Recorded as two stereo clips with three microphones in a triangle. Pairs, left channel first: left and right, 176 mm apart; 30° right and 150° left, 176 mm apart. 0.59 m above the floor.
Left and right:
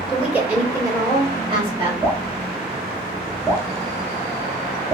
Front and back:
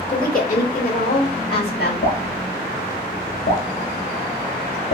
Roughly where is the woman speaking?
Ahead.